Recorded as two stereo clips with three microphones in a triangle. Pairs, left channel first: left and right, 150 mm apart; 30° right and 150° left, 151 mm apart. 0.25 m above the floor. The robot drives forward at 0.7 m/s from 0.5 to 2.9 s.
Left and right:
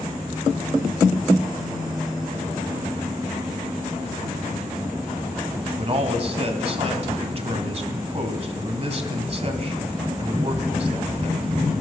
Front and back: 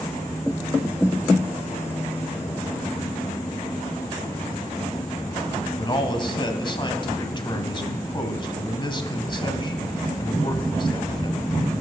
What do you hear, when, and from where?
5.8 s a man speaking: 70° right, 1.3 m